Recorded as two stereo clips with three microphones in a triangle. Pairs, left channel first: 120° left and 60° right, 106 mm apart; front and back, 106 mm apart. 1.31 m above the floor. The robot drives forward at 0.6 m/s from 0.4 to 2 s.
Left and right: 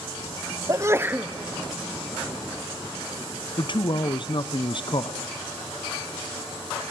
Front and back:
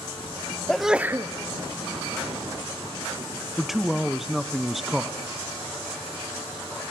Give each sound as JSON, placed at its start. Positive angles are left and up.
{"t": 0.7, "sound": "a sneeze", "azimuth_deg": -80, "distance_m": 0.6}
{"t": 3.6, "sound": "a man speaking", "azimuth_deg": 95, "distance_m": 0.8}